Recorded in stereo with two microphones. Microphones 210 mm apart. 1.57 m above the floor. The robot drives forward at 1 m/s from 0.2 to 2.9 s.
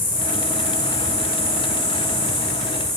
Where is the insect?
45° left (ahead or behind), 1.7 m; by 3.0 s 15° left (ahead or behind), 4 m.